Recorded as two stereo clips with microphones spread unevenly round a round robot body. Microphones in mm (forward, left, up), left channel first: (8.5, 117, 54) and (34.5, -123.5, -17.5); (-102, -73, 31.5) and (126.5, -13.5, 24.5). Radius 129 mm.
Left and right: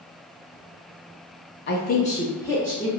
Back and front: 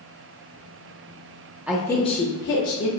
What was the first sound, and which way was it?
A woman speaking, 80° left.